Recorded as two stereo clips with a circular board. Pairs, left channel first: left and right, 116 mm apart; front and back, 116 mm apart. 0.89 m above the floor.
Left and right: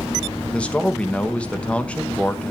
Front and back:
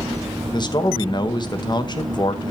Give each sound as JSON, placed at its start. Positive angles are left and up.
{"t": 0.5, "sound": "a man speaking", "azimuth_deg": 15, "distance_m": 0.9}